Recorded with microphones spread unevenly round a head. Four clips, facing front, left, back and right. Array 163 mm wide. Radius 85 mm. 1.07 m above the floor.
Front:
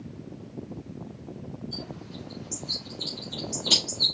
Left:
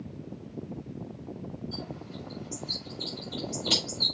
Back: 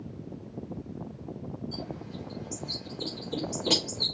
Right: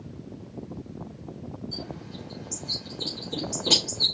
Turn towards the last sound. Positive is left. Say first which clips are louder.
# right 1 dB, back 1 dB
turn(degrees=-135)